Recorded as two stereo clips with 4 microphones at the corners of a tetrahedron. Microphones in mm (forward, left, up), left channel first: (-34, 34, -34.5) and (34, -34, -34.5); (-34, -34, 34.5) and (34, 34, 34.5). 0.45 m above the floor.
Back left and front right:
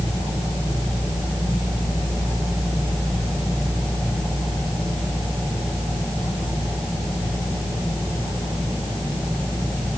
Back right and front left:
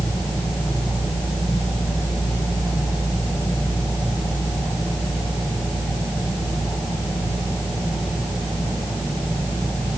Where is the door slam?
No door slam in this recording.